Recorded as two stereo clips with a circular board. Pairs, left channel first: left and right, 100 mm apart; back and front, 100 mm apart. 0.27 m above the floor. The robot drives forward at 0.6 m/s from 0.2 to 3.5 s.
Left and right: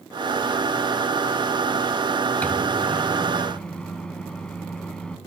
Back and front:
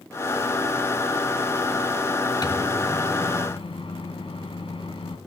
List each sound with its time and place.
2.4 s a microwave: 160° left, 0.9 m; by 5.2 s 170° left, 1.4 m